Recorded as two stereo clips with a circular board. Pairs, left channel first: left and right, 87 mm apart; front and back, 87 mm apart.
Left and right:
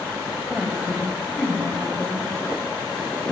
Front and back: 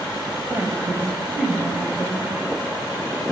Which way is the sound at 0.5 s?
155° right.